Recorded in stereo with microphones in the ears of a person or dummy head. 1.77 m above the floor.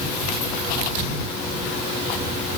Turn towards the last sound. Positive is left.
No sound to turn to.